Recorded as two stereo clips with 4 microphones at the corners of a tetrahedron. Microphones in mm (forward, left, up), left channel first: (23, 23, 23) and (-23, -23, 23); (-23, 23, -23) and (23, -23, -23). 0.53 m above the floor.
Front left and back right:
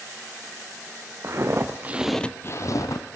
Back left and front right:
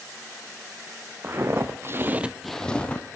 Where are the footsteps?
95° right, 1.4 m; by 3.2 s 65° left, 1.4 m.